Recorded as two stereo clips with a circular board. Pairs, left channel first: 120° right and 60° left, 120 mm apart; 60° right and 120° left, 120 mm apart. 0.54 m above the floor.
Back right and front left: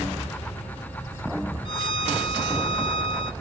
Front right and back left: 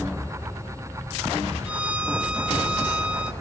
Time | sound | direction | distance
1.6 | a violin | 160° right | 0.9 m